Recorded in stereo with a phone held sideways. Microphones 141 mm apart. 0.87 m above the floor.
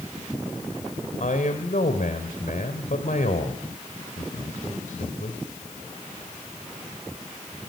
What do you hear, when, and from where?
1.2 s a man speaking: 70° left (ahead or behind), 3.5 m